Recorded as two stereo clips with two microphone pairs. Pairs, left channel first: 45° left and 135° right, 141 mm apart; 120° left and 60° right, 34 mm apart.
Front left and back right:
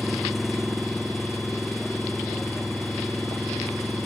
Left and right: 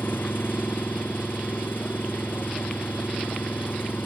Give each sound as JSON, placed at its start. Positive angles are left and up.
{"t": 0.0, "sound": "an engine running", "azimuth_deg": 135}